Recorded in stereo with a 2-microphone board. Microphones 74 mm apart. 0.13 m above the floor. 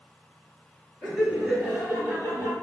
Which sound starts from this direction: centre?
Laughter, at 1.0 s.